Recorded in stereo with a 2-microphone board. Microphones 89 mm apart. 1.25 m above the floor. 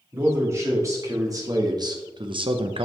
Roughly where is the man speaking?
Right.